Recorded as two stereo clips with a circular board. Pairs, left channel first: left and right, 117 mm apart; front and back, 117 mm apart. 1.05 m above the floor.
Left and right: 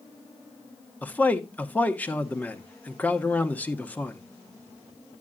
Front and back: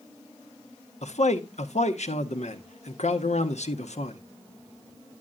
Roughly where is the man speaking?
Ahead.